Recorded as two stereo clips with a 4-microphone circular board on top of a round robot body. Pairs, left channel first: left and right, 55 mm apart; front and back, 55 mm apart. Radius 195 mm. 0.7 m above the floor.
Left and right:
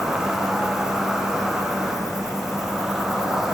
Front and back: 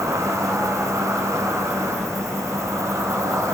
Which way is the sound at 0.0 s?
170° right.